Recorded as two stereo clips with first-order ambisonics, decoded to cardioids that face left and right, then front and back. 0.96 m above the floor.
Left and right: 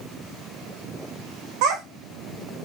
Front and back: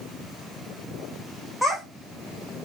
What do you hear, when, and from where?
1.6 s a child speaking: 90° right, 0.5 m